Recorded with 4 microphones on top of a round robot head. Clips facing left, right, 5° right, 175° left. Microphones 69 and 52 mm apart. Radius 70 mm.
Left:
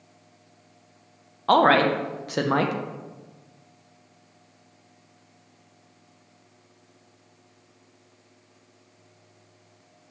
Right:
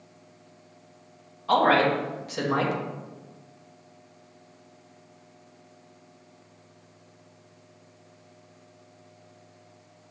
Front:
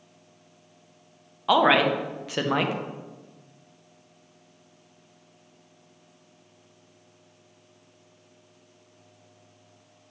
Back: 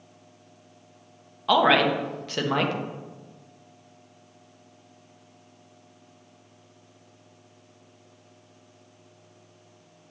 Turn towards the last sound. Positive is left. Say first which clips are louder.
# left 3 dB, even
turn(degrees=70)